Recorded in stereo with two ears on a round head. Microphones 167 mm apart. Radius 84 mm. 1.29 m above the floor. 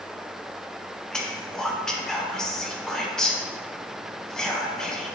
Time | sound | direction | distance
1.1 | whispering | 5° left (ahead or behind) | 0.5 m